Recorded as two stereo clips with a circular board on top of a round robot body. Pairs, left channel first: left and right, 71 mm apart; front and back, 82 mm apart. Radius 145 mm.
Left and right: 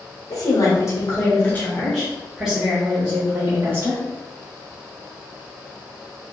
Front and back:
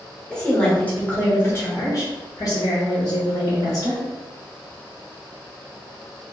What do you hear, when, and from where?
0.3 s a woman speaking: 80° left, 1.6 m; by 4.0 s 35° right, 2.0 m